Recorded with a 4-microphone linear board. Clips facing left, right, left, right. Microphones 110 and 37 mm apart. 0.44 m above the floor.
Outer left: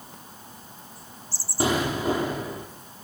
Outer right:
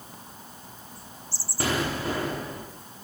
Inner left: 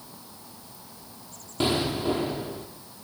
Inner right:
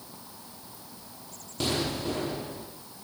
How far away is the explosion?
About 5 m.